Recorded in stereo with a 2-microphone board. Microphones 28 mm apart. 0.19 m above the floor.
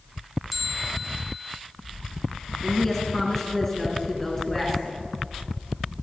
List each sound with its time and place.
0.5 s a bell: 5° right (ahead or behind), 1.2 m
2.6 s a woman speaking: 15° left (ahead or behind), 2.5 m